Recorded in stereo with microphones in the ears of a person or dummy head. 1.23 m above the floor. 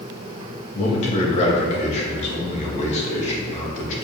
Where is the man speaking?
40° left (ahead or behind), 2.0 m.